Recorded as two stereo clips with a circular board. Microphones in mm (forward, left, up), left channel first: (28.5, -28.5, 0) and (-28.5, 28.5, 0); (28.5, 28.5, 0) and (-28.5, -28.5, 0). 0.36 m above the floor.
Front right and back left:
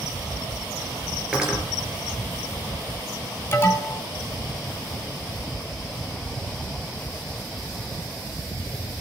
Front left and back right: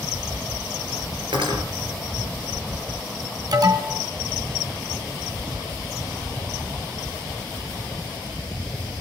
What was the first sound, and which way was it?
Cutlery clinking, 145° right.